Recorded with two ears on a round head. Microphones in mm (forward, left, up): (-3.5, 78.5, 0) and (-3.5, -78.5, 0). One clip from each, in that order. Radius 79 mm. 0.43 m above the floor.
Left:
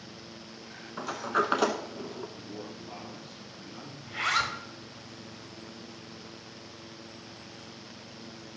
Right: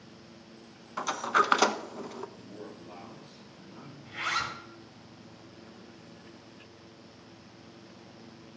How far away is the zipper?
About 1.6 m.